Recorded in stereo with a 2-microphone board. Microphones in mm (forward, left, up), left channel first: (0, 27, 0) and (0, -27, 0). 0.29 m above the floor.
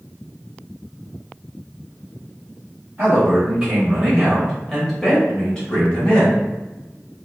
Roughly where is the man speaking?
Right.